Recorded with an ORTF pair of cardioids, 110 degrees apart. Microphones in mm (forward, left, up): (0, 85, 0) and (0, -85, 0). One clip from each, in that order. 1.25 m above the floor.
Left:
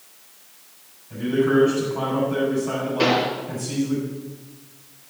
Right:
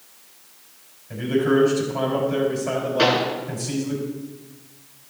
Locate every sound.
1.1 s a man speaking: 65° right, 6 m
3.0 s a pop: 45° right, 4 m